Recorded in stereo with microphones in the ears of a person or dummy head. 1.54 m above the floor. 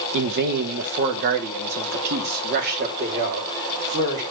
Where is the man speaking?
50° right (ahead or behind), 1.2 m; by 4.2 s 40° right (ahead or behind), 4 m.